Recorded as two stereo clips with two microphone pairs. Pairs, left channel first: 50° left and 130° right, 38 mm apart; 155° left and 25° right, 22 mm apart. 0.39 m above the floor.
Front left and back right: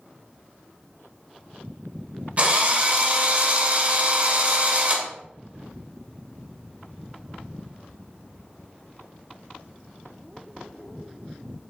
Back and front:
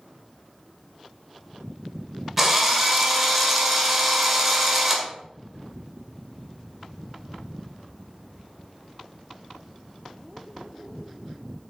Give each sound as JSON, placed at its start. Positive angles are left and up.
{"t": 2.4, "sound": "a drill", "azimuth_deg": -100, "distance_m": 1.4}